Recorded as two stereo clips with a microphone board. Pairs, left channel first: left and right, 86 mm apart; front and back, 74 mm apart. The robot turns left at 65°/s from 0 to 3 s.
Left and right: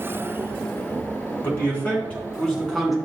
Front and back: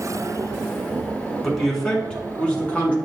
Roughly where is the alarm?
I don't hear an alarm.